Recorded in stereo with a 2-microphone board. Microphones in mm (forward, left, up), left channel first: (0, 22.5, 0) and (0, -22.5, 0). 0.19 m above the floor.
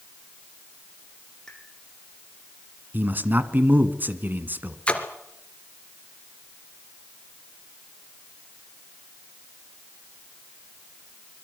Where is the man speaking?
40° right (ahead or behind), 1.7 m.